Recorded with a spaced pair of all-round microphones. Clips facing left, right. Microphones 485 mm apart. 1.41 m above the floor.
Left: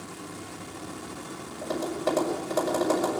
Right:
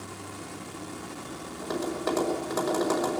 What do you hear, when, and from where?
1.6 s tapping: 50° left (ahead or behind), 6 m